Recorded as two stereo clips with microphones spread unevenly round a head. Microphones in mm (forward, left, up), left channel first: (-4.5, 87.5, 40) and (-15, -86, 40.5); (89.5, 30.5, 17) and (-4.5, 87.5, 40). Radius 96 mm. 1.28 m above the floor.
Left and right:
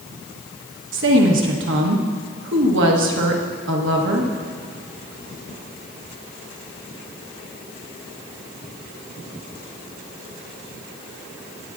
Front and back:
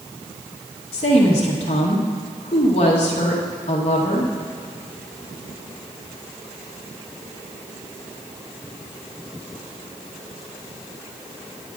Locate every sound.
0.9 s a woman speaking: 75° right, 1.3 m